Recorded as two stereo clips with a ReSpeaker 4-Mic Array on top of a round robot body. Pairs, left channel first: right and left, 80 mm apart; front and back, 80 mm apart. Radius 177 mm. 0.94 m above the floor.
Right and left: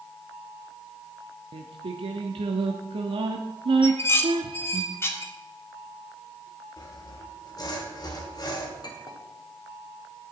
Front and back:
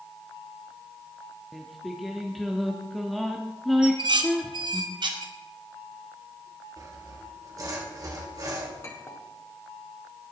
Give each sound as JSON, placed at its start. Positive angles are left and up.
{"t": 1.5, "sound": "singing", "azimuth_deg": 90, "distance_m": 0.7}
{"t": 3.8, "sound": "dishes clattering", "azimuth_deg": -150, "distance_m": 1.1}
{"t": 6.8, "sound": "sawing", "azimuth_deg": -135, "distance_m": 1.9}
{"t": 8.8, "sound": "a clink", "azimuth_deg": -55, "distance_m": 1.9}